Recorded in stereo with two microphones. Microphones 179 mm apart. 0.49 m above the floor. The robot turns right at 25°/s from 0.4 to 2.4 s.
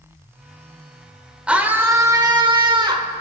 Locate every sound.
1.5 s a scream: 5° right (ahead or behind), 1.1 m; by 3.1 s 25° right (ahead or behind), 1.1 m